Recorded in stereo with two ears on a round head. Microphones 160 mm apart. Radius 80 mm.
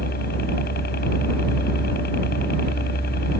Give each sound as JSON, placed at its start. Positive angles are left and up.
{"t": 0.0, "sound": "a helicopter", "side_deg": 55}